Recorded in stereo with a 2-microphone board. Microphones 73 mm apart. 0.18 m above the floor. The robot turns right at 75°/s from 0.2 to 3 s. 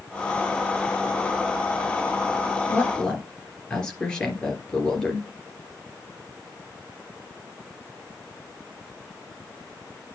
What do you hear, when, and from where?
2.7 s a woman speaking: 35° left (ahead or behind), 3.5 m; by 5.3 s 15° left (ahead or behind), 3.5 m